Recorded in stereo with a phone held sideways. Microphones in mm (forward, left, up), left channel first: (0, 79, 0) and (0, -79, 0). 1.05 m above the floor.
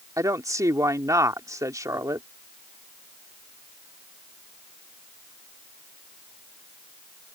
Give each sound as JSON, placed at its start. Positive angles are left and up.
{"t": 0.2, "sound": "a woman speaking", "side_deg": -20}